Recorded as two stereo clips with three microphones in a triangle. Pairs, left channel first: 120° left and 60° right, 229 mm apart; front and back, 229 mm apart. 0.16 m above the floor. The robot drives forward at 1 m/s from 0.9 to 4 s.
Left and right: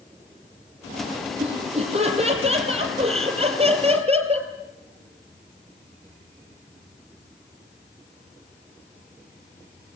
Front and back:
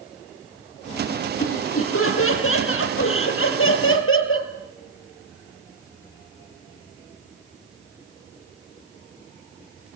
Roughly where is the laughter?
Ahead.